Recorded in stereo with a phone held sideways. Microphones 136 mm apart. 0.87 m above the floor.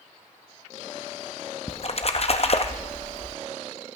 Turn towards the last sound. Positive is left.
turn(degrees=50)  # may be behind; listen again after turning